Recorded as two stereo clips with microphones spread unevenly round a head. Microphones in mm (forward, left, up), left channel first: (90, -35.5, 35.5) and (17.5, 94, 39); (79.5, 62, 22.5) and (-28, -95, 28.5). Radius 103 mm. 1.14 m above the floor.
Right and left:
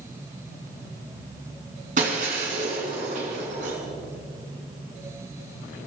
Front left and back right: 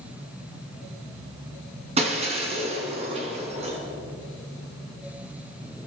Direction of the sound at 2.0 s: 175° left.